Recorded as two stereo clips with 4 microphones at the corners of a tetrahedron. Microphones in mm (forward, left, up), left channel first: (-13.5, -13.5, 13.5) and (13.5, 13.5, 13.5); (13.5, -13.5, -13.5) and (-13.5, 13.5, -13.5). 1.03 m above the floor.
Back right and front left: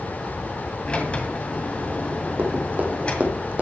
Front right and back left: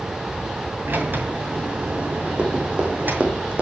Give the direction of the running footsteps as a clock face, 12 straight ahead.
9 o'clock.